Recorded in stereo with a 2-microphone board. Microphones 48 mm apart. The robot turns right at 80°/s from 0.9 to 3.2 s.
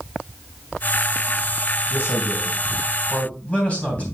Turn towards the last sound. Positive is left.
turn(degrees=150)